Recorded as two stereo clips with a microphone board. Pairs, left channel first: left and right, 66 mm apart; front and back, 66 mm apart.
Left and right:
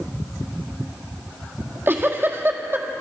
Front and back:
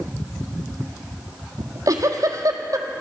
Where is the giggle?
145° right, 1.4 m.